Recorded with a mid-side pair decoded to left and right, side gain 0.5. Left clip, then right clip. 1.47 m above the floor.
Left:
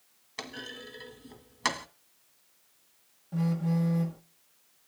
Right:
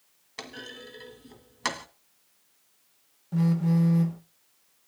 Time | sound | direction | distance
0.4 | a clunk | 5° right | 2 m
3.3 | a phone buzzing | 35° right | 1.7 m